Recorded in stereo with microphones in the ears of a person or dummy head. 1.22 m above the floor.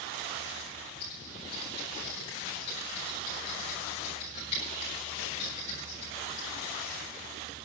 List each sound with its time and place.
1.0 s typing on a keyboard: 30° left (ahead or behind), 8.5 m